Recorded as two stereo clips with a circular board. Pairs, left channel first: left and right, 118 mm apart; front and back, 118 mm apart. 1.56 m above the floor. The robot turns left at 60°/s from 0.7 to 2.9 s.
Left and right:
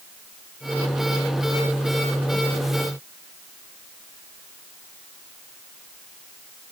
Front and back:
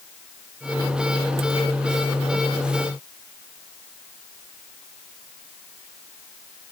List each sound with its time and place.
Only background noise.